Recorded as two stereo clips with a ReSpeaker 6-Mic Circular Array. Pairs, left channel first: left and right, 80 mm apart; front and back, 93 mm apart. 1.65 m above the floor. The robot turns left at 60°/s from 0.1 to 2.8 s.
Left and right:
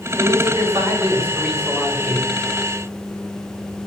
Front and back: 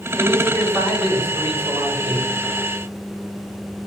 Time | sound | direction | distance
0.2 | a man speaking | 90° right | 1.6 m